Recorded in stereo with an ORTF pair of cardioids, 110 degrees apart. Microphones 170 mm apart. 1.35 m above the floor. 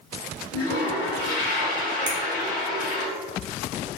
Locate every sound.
0.5 s a toilet flushing: 70° left, 1.3 m
2.1 s a finger snap: 50° right, 1.2 m